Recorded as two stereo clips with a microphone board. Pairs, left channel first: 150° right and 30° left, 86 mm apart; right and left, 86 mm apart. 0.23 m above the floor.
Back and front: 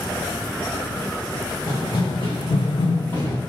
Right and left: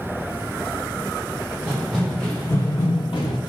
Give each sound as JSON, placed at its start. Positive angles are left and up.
{"t": 1.7, "sound": "running footsteps", "azimuth_deg": 165, "distance_m": 1.8}